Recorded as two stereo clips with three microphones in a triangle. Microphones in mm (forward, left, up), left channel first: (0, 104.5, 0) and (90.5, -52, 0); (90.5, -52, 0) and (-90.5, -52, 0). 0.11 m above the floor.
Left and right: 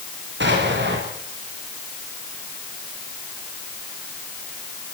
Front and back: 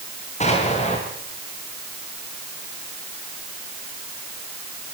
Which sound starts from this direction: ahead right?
An explosion, at 0.4 s.